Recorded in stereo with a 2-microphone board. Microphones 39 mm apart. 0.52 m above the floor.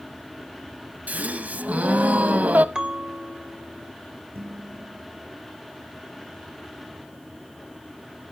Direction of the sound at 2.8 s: 20° right (ahead or behind).